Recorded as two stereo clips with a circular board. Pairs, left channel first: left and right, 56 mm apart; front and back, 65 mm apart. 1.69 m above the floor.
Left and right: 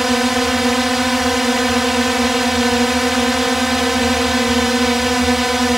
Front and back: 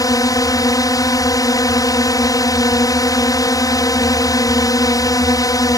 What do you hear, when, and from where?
0.0 s a drone: 5° right